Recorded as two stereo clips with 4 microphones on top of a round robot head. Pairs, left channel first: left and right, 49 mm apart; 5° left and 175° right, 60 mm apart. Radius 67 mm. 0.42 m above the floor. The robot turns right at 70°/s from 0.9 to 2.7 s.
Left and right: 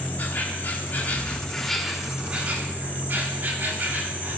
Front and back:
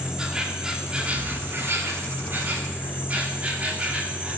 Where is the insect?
115° left, 2.5 m; by 4.4 s 120° right, 2.5 m.